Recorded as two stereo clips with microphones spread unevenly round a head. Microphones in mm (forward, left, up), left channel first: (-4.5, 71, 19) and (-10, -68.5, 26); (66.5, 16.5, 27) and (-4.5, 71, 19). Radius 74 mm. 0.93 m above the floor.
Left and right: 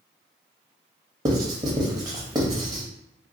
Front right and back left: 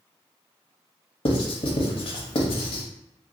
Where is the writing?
30° right, 0.9 m.